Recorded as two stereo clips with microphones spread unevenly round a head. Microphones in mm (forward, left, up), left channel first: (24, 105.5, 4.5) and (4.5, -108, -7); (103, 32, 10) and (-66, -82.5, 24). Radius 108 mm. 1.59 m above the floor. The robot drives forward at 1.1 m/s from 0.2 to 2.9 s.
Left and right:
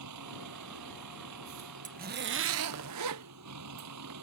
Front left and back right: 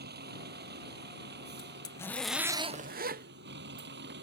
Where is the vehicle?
105° right; by 4.2 s 110° right.